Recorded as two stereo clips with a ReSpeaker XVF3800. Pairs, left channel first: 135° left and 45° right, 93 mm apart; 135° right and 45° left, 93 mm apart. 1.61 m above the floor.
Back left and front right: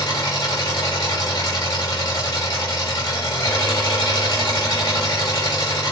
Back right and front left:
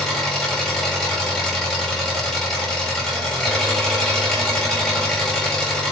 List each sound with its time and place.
0.0 s an engine running: 140° left, 2 m